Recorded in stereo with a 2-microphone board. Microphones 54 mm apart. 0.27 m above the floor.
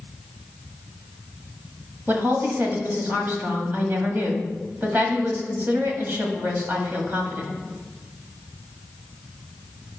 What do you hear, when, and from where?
2.1 s a woman speaking: 40° right (ahead or behind), 1.7 m